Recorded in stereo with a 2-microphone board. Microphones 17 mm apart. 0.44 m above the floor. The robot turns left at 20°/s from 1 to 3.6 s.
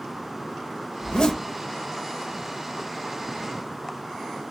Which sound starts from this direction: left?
A zipper, at 1.0 s.